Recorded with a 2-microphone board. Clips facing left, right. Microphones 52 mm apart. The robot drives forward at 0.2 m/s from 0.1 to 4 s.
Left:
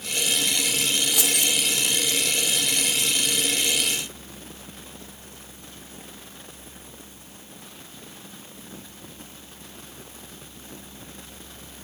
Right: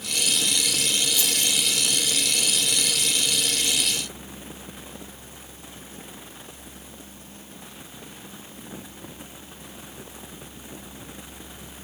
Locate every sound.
1.1 s keys jangling: 80° left, 4.5 m